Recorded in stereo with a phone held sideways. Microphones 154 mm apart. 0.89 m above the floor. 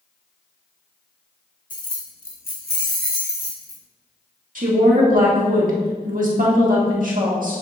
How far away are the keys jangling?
About 1.0 m.